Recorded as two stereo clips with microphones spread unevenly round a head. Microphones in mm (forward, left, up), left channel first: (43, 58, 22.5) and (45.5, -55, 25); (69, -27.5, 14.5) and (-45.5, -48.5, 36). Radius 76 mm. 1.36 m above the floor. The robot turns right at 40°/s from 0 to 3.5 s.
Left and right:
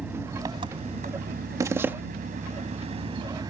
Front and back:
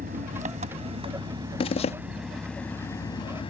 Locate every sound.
0.0 s an engine running: 175° right; by 3.5 s 35° right
1.6 s a zipper: 30° right; by 1.9 s 15° right